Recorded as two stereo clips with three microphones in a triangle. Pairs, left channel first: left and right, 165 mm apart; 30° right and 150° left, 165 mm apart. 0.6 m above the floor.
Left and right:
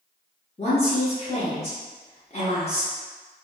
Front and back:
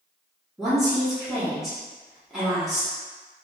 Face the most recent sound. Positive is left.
turn(degrees=60)